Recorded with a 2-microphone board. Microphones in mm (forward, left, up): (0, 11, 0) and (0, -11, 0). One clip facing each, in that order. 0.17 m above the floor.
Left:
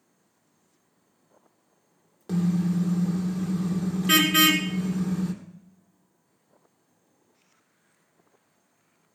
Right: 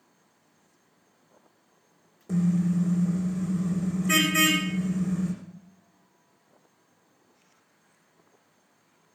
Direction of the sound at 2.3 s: 70° left (ahead or behind).